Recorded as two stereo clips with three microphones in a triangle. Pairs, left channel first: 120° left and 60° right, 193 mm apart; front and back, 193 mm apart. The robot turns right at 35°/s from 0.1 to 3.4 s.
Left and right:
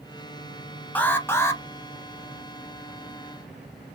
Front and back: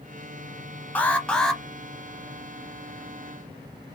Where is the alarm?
60° left, 0.7 m; by 1.6 s 85° left, 0.7 m.